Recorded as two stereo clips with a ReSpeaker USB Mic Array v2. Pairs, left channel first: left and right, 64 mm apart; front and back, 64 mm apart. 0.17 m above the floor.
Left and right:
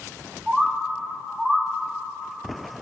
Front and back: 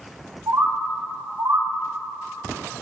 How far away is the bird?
About 5 m.